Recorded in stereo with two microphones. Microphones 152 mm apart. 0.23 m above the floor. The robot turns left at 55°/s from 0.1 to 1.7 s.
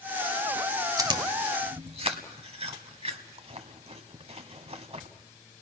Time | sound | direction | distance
1.0 | chewing | 25° right (ahead or behind) | 1.3 m